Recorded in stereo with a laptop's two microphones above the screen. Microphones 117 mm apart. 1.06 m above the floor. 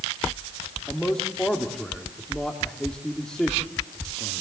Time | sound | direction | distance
0.9 | a man speaking | 5° left (ahead or behind) | 2.5 m